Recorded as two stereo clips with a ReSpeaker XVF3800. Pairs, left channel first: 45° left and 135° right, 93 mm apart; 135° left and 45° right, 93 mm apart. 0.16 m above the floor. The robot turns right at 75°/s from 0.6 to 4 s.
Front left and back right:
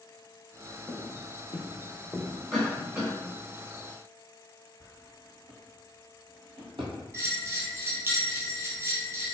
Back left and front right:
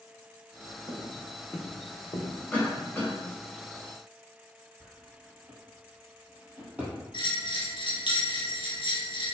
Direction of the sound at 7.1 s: 165° left.